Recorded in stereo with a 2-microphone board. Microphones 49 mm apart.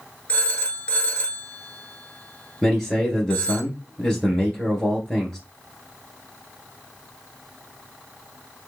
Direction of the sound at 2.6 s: 10° left (ahead or behind).